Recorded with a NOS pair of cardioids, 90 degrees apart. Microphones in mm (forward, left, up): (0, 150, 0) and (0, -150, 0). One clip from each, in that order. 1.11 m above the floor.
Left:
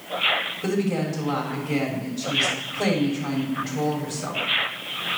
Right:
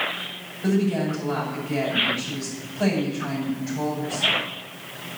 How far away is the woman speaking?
About 7 m.